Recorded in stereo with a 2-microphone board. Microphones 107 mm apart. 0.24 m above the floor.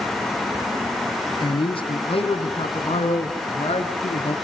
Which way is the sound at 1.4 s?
50° left (ahead or behind).